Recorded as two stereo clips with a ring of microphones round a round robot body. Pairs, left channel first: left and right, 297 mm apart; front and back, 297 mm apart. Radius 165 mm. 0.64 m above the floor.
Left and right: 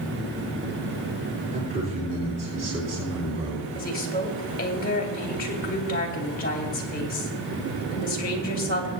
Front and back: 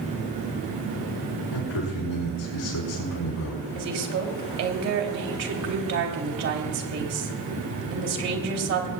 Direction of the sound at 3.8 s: 150° left.